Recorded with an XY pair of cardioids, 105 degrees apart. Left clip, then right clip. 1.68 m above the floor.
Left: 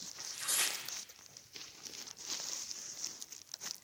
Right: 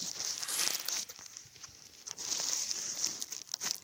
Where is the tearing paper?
25° left, 3.5 m.